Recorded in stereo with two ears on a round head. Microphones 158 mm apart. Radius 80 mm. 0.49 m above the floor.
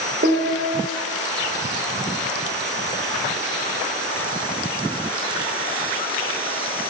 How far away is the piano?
About 1.7 m.